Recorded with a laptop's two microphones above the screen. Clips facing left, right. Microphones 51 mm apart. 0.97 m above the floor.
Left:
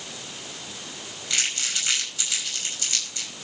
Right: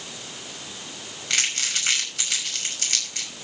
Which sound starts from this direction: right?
Crumpling, at 1.3 s.